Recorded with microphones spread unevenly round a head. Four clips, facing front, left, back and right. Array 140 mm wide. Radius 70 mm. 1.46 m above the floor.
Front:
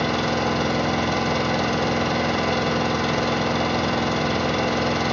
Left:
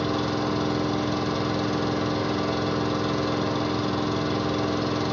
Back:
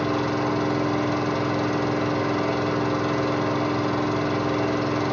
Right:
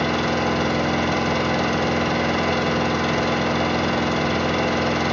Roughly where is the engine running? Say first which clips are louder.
Right 4 dB, front 1 dB; ahead right.